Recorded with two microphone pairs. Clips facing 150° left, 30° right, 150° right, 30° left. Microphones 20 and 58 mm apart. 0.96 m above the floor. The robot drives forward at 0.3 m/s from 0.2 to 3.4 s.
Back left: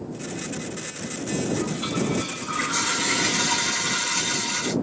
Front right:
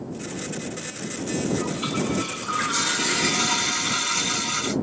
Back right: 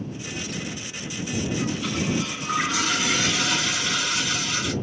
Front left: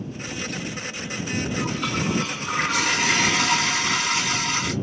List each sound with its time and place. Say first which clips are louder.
1.5 s a toilet flushing: even, front left 1 dB; 55° left, 2.5 m; by 4.7 s 65° left, 2.5 m